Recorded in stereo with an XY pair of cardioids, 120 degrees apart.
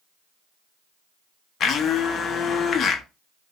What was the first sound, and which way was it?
A blender, 45° left.